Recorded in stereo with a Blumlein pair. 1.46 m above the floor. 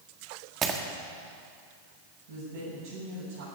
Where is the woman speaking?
55° right, 7.5 m.